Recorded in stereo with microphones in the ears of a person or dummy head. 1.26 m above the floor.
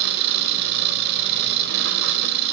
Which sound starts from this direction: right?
An engine running, at 0.0 s.